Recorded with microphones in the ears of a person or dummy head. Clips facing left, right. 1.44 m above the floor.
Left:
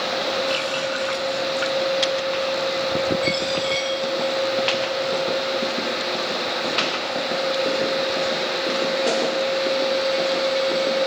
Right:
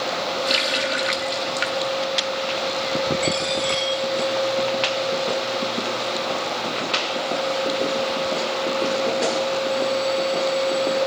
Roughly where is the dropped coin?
Right.